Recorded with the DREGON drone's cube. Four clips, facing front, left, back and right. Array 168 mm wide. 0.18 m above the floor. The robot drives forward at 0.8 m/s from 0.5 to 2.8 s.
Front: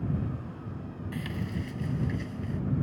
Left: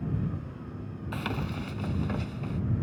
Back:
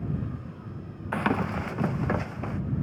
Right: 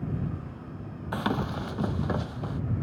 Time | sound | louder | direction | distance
1.1 | running footsteps | right 5 dB, back 10 dB | 150° right | ?